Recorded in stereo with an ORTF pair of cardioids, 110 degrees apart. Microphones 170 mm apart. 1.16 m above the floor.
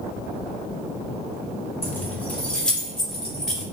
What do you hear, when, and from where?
1.8 s keys jangling: 15° left, 1.2 m; by 3.6 s straight ahead, 3.5 m